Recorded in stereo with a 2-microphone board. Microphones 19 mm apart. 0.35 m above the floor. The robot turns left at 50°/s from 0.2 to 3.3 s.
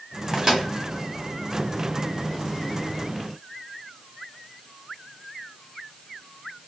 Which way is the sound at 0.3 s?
35° right (ahead or behind).